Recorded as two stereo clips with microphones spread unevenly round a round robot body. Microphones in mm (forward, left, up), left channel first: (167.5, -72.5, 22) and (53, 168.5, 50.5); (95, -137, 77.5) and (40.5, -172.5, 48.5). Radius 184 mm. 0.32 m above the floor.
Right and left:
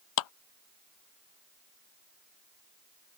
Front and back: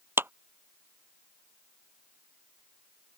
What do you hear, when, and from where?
0.2 s a clap: 90° right